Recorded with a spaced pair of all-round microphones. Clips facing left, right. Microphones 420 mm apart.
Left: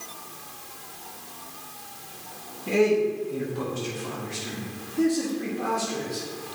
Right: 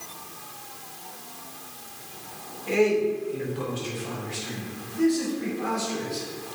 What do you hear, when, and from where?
2.7 s a man speaking: 60° left (ahead or behind), 1.8 m; by 6.3 s 70° left (ahead or behind), 4 m